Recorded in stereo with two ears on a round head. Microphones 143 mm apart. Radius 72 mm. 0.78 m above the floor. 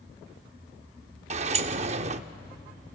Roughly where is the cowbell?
I don't hear a cowbell.